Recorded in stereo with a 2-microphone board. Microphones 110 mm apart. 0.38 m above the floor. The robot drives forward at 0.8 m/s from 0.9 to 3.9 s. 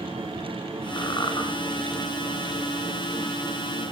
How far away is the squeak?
About 2 m.